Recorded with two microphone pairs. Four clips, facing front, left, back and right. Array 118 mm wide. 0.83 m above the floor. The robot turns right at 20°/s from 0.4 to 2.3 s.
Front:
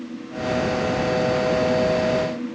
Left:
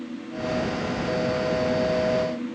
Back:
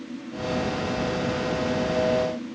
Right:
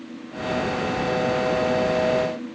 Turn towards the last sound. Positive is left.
No sound to turn to.